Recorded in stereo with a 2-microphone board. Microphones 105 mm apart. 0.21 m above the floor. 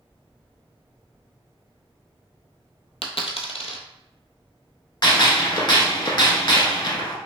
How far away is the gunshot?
About 0.7 m.